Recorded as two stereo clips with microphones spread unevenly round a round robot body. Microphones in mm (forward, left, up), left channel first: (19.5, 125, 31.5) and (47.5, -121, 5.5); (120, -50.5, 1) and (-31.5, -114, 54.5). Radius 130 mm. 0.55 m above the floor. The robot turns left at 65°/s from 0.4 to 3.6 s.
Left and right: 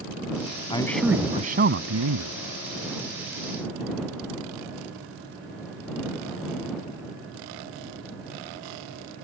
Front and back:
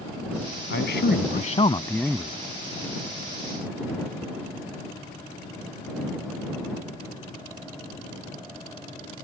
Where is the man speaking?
25° left; by 2.4 s 85° right.